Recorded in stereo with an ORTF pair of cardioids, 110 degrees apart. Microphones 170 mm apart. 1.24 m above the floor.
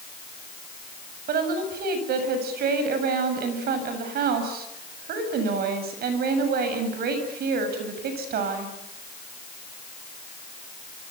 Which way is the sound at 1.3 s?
65° right.